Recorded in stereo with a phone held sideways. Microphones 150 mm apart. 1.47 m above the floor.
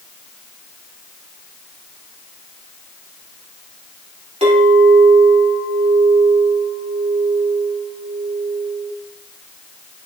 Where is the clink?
50° right (ahead or behind), 3 m.